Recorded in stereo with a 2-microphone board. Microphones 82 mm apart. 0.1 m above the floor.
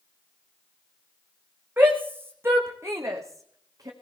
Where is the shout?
25° right (ahead or behind), 6.5 m; by 3.9 s 45° right (ahead or behind), 5.5 m.